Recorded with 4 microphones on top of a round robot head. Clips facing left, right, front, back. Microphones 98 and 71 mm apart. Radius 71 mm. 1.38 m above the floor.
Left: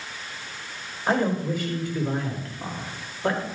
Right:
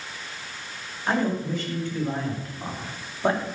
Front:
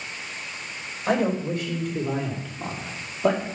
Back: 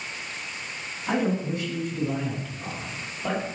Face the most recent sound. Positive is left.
turn(degrees=-25)